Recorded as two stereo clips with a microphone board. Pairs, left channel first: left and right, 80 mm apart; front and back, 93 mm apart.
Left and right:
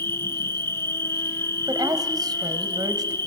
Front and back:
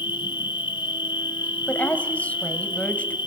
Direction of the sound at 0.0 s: 35° left.